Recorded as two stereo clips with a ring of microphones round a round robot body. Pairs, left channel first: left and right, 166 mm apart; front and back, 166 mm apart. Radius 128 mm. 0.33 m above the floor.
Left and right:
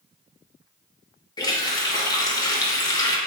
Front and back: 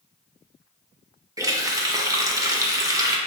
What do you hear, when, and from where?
1.4 s a running tap: 130° left, 0.7 m